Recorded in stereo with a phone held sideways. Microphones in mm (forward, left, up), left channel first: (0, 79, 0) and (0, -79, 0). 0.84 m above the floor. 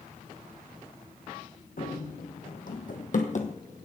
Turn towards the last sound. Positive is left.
turn(degrees=50)  # may be behind; listen again after turning